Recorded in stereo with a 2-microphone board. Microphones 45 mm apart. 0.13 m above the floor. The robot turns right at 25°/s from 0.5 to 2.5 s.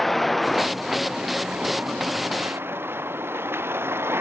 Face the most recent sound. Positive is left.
turn(degrees=-60)  # may be behind; listen again after turning